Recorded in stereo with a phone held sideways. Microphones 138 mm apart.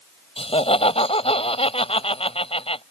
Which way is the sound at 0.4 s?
45° left (ahead or behind).